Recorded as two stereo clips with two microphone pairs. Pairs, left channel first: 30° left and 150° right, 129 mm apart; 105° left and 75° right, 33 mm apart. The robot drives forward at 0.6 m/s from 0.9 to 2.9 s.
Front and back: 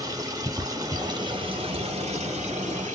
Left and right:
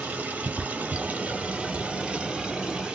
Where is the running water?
90° right, 1.2 m; by 3.0 s 140° right, 1.7 m.